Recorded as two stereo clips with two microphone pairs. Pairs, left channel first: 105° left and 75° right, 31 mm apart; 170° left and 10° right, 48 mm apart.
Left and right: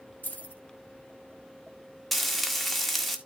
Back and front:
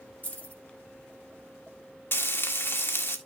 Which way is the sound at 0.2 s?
115° left.